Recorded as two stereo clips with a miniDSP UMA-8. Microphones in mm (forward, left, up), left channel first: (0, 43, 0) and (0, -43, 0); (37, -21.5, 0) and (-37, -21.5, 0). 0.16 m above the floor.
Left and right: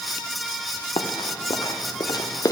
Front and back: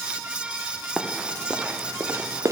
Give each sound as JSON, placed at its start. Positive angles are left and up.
{"t": 1.0, "sound": "running footsteps", "azimuth_deg": 90, "distance_m": 1.2}